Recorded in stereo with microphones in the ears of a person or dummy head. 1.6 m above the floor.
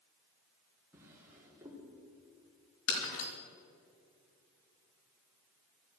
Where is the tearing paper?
No tearing paper in this recording.